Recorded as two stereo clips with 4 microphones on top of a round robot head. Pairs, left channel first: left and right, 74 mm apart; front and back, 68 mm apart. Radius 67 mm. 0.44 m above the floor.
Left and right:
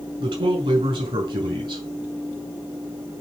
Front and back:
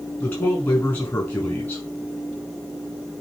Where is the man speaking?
65° right, 5 m.